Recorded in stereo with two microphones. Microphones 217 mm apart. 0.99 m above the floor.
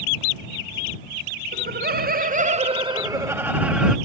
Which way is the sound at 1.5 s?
50° right (ahead or behind).